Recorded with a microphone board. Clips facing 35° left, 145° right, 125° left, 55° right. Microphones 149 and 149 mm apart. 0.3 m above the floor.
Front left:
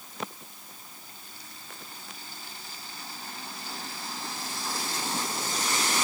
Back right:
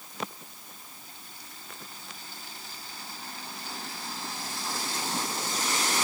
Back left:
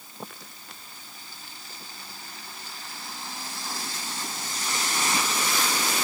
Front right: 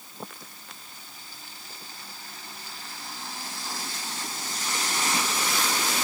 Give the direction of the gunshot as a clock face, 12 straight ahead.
I don't hear a gunshot.